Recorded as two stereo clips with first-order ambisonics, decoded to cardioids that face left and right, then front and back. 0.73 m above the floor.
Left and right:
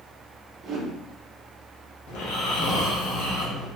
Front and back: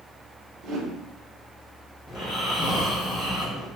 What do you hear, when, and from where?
0.6 s a whoosh: 135° right, 0.6 m
2.1 s snoring: 75° left, 0.8 m